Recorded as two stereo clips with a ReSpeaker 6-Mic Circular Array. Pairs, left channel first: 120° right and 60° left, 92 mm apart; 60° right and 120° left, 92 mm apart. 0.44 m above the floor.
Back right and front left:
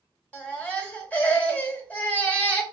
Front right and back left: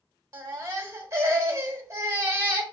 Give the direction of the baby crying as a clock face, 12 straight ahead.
6 o'clock.